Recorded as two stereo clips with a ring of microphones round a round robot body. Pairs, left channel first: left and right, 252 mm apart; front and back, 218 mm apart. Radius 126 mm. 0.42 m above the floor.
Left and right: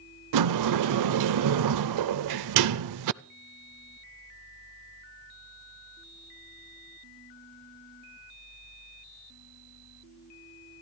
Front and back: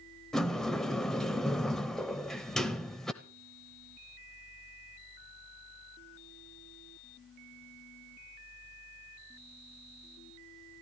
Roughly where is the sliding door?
Right.